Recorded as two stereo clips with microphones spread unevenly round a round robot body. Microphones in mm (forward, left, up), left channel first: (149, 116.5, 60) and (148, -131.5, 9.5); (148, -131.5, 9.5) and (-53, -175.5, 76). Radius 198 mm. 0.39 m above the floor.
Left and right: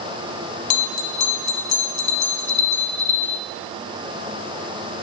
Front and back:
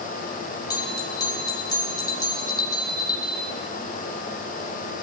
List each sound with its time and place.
0.7 s a bell: 80° left, 1.1 m